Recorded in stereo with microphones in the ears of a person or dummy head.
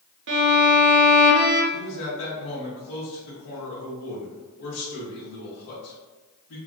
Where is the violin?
60° right (ahead or behind), 0.6 m.